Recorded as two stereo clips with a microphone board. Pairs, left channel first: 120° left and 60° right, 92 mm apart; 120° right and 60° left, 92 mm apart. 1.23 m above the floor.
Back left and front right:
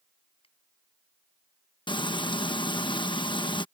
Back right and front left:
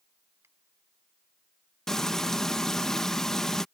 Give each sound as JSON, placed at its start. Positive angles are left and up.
{"t": 0.4, "sound": "a finger snap", "azimuth_deg": 120}
{"t": 1.9, "sound": "frying", "azimuth_deg": 155}